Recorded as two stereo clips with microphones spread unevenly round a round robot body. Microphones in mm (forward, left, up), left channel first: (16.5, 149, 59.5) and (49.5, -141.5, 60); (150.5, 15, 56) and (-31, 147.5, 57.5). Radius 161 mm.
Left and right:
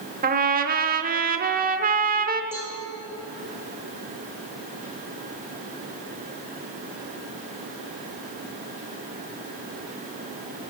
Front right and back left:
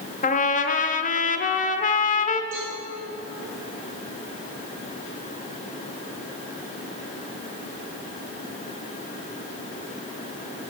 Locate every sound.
0.2 s a trumpet: 50° right, 0.9 m
2.5 s a cowbell: 165° right, 6 m